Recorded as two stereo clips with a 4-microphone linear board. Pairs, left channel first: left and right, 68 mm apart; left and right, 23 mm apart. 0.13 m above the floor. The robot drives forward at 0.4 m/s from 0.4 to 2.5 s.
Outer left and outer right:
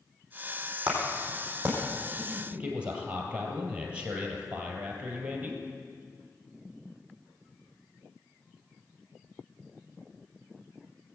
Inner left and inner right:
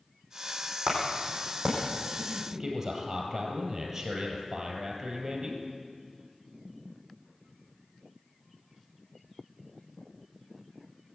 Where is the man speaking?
15° right (ahead or behind), 2.5 m.